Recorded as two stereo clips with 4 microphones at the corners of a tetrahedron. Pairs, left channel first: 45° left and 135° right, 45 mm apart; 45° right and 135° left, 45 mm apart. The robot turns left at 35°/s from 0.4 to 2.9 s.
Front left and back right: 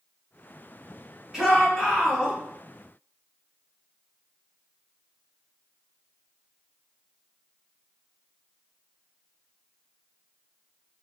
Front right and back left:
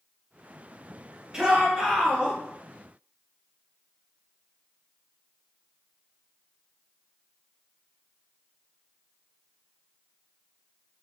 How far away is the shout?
About 1.1 m.